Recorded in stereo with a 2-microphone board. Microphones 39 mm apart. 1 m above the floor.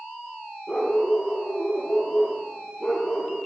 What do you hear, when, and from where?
0.7 s a dog barking: 15° left (ahead or behind), 9.5 m; by 3.4 s 10° left (ahead or behind), 8 m